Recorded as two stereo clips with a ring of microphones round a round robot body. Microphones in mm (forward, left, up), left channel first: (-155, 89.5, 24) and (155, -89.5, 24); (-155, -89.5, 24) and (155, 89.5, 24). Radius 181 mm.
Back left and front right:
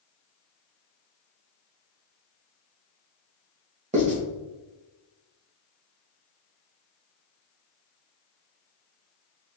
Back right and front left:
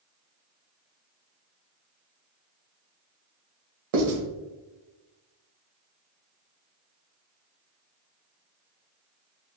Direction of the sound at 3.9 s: 40° left.